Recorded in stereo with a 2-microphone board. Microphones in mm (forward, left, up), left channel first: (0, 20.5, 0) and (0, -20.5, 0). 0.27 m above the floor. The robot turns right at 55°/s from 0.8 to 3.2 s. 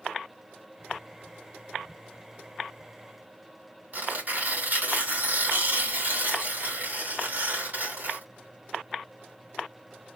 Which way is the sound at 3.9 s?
55° right (ahead or behind).